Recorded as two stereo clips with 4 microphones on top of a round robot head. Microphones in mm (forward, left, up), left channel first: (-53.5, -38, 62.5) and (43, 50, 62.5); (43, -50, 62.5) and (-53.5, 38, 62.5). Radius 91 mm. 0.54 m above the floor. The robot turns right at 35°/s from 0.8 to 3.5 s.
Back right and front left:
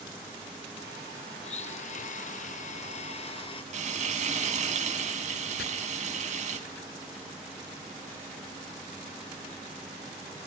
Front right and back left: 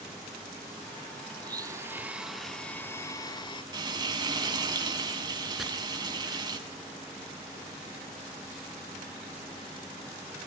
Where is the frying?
75° left, 3.5 m.